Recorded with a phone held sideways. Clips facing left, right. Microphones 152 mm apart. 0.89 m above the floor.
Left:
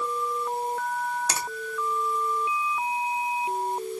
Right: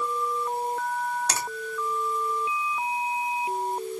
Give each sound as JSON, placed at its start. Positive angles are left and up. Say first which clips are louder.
{"t": 1.3, "sound": "a finger snap", "louder": "right 1 dB", "side_deg": 10, "distance_m": 1.3}